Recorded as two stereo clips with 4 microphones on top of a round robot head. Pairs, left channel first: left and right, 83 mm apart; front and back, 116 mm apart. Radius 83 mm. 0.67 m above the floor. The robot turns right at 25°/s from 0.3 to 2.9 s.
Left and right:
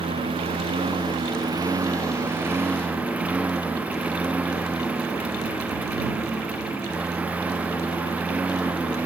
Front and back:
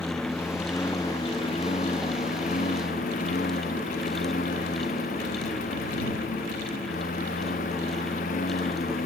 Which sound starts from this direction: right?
A lawn mower, at 0.0 s.